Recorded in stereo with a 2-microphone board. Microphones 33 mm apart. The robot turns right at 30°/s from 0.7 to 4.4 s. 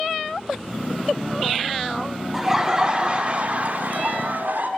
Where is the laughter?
165° right, 1.4 m; by 4.7 s 105° right, 1.4 m.